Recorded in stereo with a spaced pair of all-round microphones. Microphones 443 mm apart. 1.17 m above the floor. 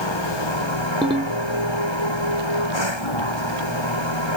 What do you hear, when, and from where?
0.0 s a machine running: 80° left
1.0 s a ringtone: 10° right (ahead or behind)